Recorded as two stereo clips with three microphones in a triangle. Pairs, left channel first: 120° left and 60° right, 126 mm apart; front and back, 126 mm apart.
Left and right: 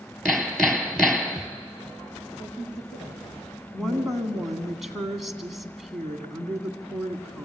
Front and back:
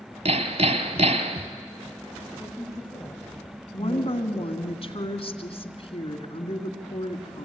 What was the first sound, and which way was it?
Hammering, 155° right.